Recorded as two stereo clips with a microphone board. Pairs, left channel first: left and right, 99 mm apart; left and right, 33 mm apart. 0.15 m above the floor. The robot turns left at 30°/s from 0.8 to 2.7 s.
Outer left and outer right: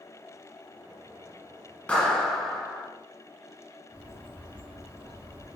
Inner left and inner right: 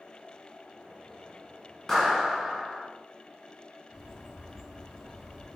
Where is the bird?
15° right (ahead or behind), 1.4 m.